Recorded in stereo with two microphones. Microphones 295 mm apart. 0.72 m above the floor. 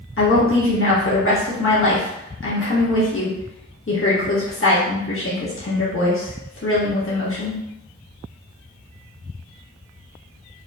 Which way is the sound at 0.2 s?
45° left (ahead or behind).